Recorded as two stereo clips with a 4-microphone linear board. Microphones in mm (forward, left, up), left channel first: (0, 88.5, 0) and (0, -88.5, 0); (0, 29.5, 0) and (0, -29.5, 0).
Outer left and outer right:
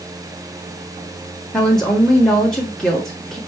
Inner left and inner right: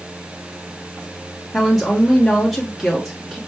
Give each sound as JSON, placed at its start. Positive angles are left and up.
{"t": 1.5, "sound": "a woman speaking", "side_deg": 5, "distance_m": 1.0}